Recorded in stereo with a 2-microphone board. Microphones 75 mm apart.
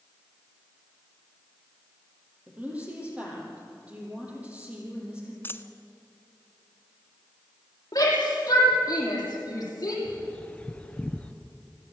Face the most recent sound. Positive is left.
turn(degrees=15)  # may be behind; listen again after turning